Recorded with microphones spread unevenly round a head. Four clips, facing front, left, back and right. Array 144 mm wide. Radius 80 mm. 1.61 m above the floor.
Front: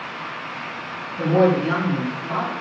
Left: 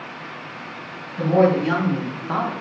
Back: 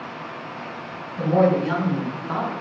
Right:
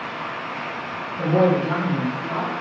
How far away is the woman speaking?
About 1.3 m.